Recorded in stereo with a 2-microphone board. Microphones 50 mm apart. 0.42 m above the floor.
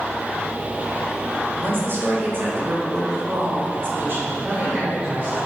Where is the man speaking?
40° right (ahead or behind), 1.6 m.